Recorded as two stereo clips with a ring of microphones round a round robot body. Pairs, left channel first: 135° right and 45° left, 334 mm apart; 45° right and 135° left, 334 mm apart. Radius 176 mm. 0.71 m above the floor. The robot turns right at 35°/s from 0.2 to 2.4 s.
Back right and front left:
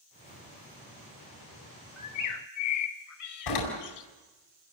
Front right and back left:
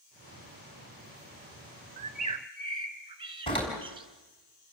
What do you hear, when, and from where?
2.0 s a bird: 165° right, 1.6 m; by 4.1 s 150° right, 1.6 m
3.5 s a door slam: 120° right, 4.5 m